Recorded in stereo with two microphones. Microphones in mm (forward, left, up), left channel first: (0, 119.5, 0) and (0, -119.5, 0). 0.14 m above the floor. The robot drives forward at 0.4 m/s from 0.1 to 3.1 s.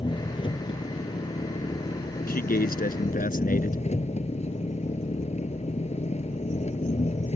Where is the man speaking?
40° left (ahead or behind); by 3.8 s 35° left (ahead or behind).